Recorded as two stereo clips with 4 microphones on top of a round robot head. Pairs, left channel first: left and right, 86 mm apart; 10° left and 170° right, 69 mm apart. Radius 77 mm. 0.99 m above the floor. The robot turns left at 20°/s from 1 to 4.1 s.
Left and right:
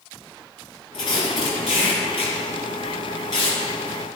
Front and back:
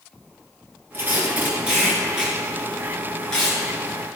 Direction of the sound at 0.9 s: 130° left.